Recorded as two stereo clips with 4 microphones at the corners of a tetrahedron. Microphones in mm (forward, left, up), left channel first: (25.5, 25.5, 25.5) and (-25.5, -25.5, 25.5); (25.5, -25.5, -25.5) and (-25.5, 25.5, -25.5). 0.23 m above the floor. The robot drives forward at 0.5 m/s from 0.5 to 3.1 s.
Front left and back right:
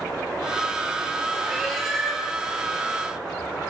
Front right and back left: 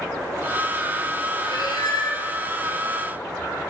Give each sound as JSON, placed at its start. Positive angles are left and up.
{"t": 1.4, "sound": "a cat meowing", "azimuth_deg": -40, "distance_m": 3.5}